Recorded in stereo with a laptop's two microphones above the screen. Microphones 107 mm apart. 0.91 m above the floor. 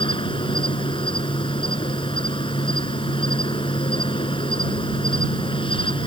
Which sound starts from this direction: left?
An insect, at 0.0 s.